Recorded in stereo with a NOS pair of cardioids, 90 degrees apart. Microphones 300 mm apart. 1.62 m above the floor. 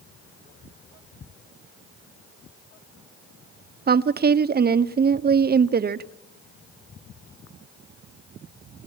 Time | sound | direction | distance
3.9 | a woman speaking | 30° right | 0.9 m